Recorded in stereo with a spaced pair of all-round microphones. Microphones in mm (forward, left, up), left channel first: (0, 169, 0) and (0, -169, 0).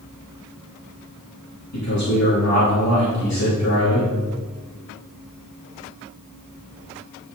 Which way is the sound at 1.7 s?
50° left (ahead or behind).